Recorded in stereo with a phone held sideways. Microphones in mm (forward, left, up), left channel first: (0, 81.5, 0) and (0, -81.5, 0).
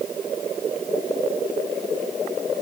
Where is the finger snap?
No finger snap in this recording.